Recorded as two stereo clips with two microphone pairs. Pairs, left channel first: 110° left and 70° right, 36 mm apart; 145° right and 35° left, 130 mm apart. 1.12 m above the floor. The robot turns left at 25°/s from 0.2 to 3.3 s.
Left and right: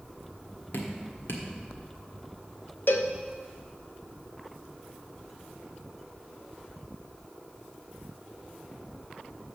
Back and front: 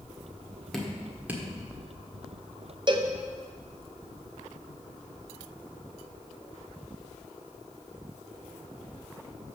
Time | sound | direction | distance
0.7 | dripping | 125° left | 1.5 m
2.9 | a cowbell | 90° left | 0.7 m